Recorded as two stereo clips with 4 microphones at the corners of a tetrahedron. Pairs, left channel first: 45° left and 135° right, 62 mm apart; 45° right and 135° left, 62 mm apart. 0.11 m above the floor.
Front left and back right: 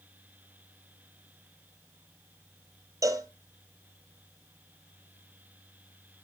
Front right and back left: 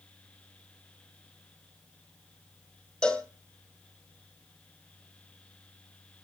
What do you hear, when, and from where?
3.0 s a cowbell: 120° right, 1.4 m